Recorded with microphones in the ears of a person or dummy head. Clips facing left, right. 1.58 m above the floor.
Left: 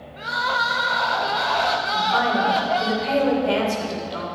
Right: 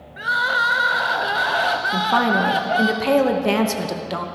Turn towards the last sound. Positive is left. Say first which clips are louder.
# right 4 dB
turn(degrees=-85)